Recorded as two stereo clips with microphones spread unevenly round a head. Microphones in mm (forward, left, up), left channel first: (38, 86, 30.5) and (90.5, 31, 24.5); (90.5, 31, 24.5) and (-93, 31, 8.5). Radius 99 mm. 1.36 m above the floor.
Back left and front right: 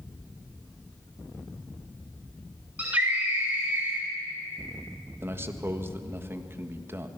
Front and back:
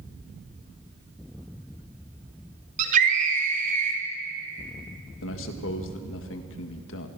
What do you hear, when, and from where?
2.8 s a scream: 125° right, 2.5 m
5.2 s a man speaking: 15° left, 1.9 m